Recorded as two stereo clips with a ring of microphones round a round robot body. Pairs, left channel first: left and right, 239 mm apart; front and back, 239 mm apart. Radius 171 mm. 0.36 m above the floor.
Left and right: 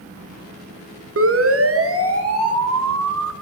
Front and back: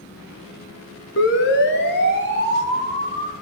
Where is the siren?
55° right, 4.5 m; by 3.3 s 70° right, 4 m.